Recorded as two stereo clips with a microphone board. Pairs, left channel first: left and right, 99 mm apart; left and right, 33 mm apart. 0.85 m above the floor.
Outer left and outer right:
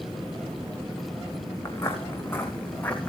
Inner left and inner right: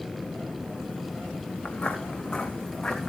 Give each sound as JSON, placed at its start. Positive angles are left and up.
{"t": 1.6, "sound": "footsteps", "side_deg": 25, "distance_m": 3.5}